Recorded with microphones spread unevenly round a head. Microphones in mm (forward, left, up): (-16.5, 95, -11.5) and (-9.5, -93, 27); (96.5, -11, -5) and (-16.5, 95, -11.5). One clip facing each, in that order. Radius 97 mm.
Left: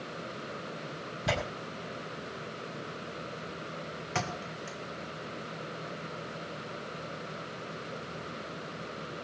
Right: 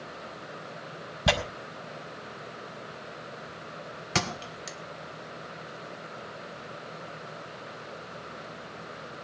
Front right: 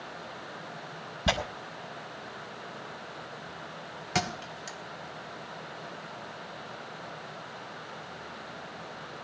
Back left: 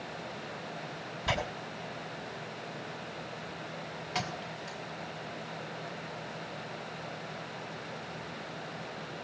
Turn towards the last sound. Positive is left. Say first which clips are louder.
# right 4 dB, front right 5 dB
turn(degrees=-80)